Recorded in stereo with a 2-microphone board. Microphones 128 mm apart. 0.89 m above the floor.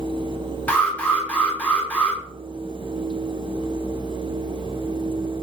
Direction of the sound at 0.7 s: 10° left (ahead or behind).